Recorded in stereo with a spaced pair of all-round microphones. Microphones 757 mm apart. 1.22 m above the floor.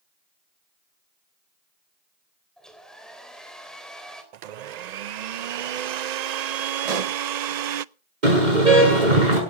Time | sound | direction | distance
2.6 | a hair dryer | centre (ahead or behind) | 3 m
4.3 | a blender | 65° right (ahead or behind) | 0.6 m
6.8 | a pop | 55° right (ahead or behind) | 0.9 m
8.2 | a car horn | 70° right (ahead or behind) | 7.5 m